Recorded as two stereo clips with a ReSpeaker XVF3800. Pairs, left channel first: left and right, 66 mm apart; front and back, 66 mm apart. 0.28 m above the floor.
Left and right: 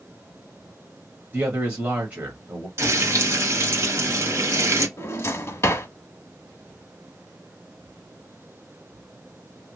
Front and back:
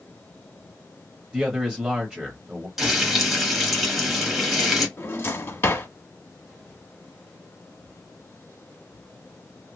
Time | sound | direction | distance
1.3 | a man speaking | 120° right | 0.9 m
2.8 | frying | 100° right | 1.1 m
5.0 | a drawer | 45° left | 0.8 m